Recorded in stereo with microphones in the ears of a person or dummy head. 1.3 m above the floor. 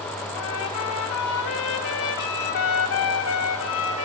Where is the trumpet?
65° left (ahead or behind), 2.5 m.